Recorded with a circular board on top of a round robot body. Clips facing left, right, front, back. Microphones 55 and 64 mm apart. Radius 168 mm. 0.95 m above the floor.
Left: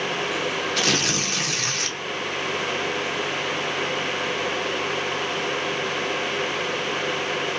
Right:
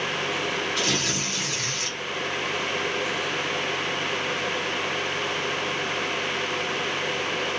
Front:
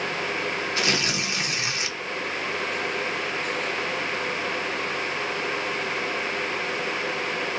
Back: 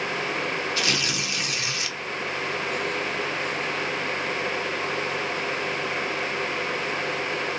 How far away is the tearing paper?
About 0.8 m.